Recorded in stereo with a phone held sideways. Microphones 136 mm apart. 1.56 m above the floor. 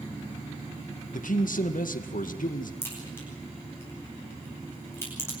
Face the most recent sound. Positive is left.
turn(degrees=15)  # may be behind; listen again after turning